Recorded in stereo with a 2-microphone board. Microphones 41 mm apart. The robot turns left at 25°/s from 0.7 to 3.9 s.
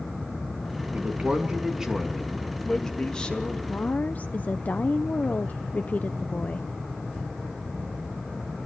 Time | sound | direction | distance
0.9 | a man speaking | 145° right | 3 m
3.7 | a woman speaking | 40° left (ahead or behind) | 0.6 m